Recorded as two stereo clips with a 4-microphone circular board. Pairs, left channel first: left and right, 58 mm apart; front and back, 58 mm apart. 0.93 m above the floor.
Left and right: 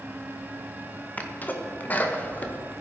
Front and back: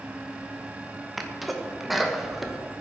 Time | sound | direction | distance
1.2 | a sneeze | 85° left | 0.9 m